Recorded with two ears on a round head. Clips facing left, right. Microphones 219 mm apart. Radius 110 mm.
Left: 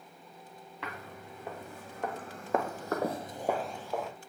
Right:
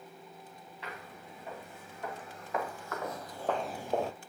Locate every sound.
0.8 s footsteps: 55° left (ahead or behind), 2 m; by 4.1 s 35° right (ahead or behind), 0.5 m